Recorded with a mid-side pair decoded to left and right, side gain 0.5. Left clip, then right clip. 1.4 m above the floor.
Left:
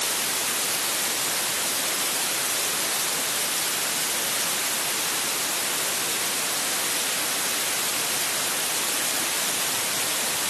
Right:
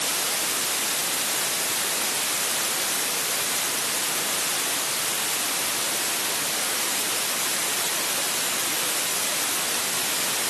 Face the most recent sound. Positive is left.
No sound to turn to.